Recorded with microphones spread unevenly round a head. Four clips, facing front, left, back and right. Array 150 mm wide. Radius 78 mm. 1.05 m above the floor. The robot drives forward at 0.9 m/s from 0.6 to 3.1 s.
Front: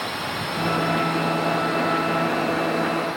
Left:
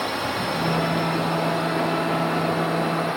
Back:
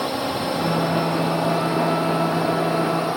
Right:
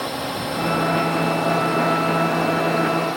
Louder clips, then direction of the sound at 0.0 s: Even, back 5 dB; 170° right.